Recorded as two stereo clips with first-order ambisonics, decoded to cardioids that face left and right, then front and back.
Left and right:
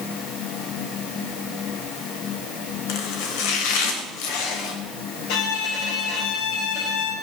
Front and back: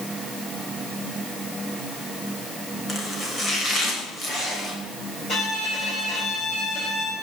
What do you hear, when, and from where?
2.9 s chopping: 75° left, 3 m
5.3 s a violin: 70° left, 4 m